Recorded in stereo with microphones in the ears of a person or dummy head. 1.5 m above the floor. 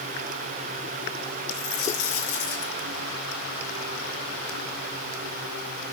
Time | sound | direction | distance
1.5 | a dropped coin | 80° left | 7.5 m